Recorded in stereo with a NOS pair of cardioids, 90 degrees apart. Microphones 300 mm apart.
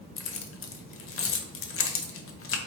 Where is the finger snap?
I don't hear a finger snap.